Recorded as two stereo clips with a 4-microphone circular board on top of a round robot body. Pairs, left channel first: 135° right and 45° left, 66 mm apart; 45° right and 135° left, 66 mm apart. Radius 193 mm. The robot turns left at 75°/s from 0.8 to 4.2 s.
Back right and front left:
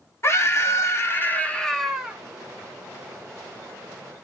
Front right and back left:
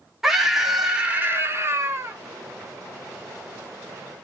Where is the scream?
140° right, 1.4 m; by 2.2 s 115° left, 1.4 m.